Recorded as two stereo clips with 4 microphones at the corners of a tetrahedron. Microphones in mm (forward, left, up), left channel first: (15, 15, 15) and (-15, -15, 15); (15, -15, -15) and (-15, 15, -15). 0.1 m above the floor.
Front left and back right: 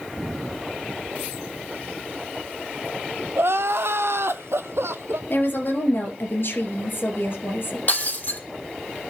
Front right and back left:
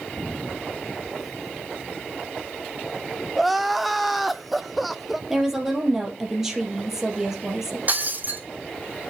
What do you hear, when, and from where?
3.4 s crying: 135° right, 0.6 m
5.3 s a woman speaking: 60° left, 2.5 m
7.9 s breaking glass: 90° left, 1.8 m